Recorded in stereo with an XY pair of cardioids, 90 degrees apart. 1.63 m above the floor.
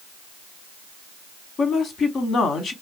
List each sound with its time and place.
1.6 s a woman speaking: 70° left, 0.9 m